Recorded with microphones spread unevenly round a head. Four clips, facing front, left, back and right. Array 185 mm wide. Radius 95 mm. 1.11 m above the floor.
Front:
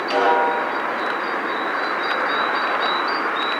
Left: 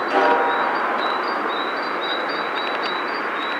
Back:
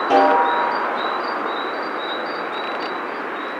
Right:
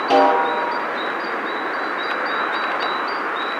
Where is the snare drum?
135° right, 7.5 m.